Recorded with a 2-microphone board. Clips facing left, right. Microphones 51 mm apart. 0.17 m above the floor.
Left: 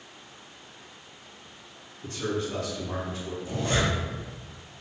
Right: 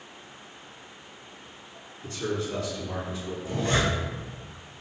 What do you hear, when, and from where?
2.0 s a man speaking: 40° left (ahead or behind), 1.6 m
3.5 s a zipper: 20° right (ahead or behind), 1.1 m